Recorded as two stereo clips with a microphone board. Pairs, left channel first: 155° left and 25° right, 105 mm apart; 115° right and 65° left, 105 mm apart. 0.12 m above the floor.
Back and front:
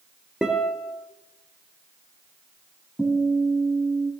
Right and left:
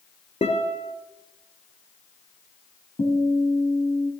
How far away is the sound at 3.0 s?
About 3.5 m.